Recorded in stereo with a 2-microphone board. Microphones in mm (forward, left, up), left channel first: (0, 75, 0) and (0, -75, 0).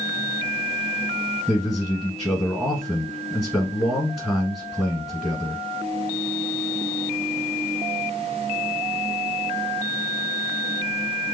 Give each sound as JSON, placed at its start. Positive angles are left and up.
{"t": 1.5, "sound": "a man speaking", "side_deg": 0, "distance_m": 1.7}